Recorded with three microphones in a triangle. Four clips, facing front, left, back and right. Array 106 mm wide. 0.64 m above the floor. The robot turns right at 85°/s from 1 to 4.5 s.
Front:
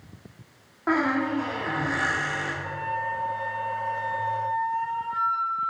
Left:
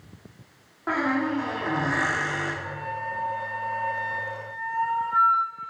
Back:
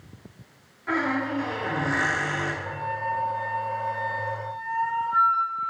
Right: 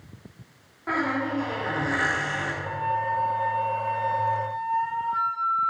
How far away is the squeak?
About 3.5 m.